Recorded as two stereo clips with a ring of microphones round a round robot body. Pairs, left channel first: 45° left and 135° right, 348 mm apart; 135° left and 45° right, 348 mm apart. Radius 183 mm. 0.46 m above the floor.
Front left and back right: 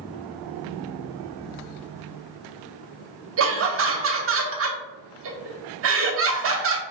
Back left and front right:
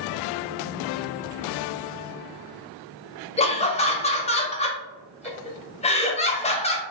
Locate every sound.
3.4 s laughter: 160° right, 1.0 m